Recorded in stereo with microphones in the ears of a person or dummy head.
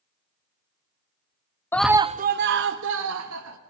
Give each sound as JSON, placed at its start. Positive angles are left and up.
{"t": 1.7, "sound": "a scream", "side_deg": 10, "distance_m": 0.5}